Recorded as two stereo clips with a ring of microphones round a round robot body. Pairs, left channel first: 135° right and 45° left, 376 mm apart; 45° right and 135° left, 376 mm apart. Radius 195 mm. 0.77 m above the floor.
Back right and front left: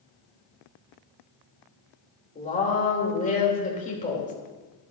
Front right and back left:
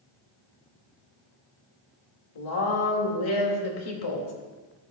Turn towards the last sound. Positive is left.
turn(degrees=-65)